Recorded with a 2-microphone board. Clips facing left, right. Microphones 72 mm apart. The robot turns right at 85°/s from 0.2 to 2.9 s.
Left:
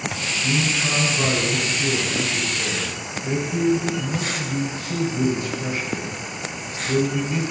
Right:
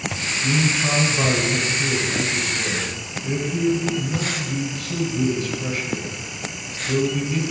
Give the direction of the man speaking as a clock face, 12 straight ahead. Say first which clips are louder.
Right 2 dB; 6 o'clock.